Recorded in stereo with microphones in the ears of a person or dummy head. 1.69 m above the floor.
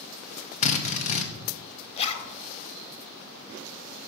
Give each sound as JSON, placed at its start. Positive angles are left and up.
{"t": 0.6, "sound": "a drill", "side_deg": 40, "distance_m": 0.7}
{"t": 2.0, "sound": "a zipper", "side_deg": 30, "distance_m": 0.8}